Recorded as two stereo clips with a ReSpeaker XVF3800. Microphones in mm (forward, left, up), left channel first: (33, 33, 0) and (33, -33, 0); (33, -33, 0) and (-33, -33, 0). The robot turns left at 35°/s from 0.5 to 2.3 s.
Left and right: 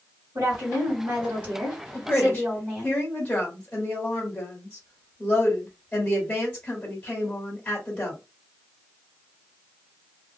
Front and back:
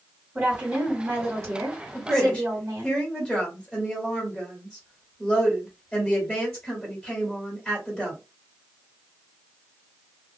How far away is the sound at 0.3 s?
About 1.8 m.